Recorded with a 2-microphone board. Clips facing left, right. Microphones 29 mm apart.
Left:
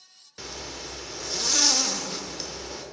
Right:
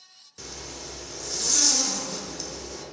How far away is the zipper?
About 0.9 m.